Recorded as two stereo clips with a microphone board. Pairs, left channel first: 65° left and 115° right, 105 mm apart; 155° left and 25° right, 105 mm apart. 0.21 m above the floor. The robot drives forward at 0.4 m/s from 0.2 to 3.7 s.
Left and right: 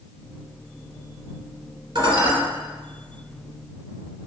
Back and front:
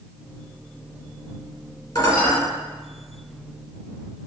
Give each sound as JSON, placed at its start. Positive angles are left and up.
{"t": 1.9, "sound": "dishes clattering", "azimuth_deg": -155, "distance_m": 2.5}